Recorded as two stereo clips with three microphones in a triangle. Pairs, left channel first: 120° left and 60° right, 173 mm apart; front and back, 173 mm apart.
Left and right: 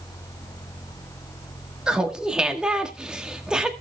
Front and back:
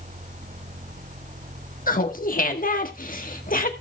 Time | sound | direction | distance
1.9 | laughter | 25° left | 1.7 m